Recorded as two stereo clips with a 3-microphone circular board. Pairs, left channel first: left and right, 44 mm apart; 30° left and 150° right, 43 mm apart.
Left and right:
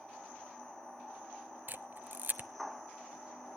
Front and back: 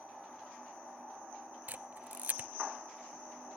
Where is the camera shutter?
110° right, 0.6 m.